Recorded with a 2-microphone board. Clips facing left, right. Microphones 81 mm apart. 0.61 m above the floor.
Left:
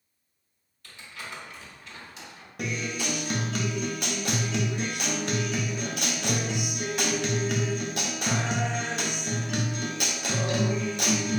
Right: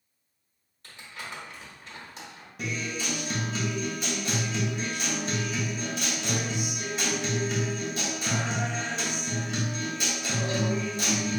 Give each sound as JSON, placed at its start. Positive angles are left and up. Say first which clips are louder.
{"t": 0.8, "sound": "crumpling", "louder": "even", "side_deg": -35, "distance_m": 1.2}
{"t": 2.6, "sound": "a guitar", "louder": "left 2 dB", "side_deg": 65, "distance_m": 0.5}